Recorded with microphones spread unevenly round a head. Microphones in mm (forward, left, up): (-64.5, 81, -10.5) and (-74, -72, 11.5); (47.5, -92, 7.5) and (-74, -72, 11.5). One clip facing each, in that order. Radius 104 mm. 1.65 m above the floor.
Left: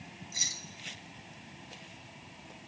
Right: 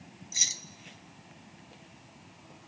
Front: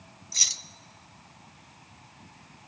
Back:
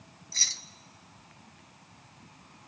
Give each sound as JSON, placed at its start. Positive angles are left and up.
{"t": 0.3, "sound": "keys jangling", "azimuth_deg": -75, "distance_m": 0.5}